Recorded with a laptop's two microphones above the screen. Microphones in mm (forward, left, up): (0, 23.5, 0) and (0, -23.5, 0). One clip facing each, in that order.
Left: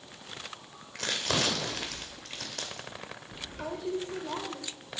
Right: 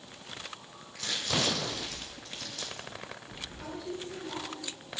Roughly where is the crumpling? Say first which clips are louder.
Left 2 dB; left.